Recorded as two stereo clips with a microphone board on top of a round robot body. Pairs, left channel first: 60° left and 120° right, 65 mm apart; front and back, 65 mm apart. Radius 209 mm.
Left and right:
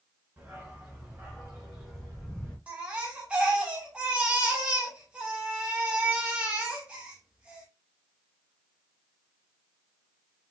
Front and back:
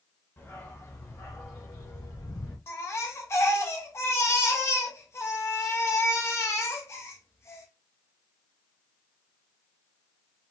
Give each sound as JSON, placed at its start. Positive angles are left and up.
{"t": 0.4, "sound": "a dog barking", "azimuth_deg": -50, "distance_m": 2.5}
{"t": 2.7, "sound": "a baby crying", "azimuth_deg": -50, "distance_m": 1.3}